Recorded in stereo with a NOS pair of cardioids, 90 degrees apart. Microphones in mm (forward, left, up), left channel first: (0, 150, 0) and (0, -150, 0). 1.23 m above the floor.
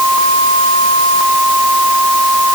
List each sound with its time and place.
Only background noise.